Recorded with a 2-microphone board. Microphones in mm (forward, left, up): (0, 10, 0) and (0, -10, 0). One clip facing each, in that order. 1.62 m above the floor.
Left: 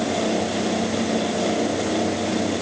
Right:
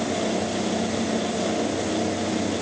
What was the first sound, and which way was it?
Only background noise.